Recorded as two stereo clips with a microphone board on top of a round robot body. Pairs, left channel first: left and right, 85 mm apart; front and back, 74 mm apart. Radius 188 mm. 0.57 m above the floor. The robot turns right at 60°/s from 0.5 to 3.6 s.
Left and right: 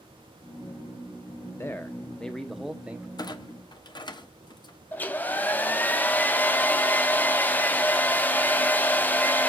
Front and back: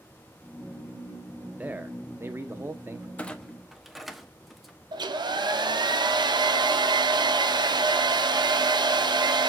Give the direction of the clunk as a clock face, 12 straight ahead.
10 o'clock.